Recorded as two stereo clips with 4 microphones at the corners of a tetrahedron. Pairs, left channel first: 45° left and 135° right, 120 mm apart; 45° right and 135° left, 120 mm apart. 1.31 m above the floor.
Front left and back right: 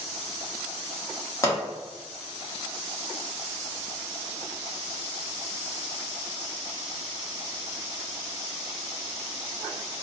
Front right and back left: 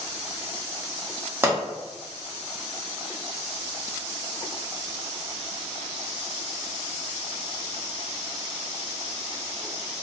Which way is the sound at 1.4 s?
80° left.